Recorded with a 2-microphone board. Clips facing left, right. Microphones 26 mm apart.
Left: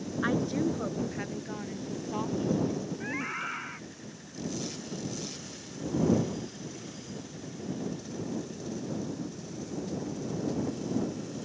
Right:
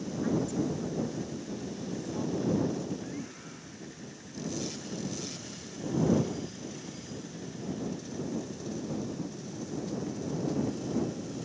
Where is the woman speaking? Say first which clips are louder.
Left 2 dB; 55° left (ahead or behind); by 3.7 s 45° left (ahead or behind).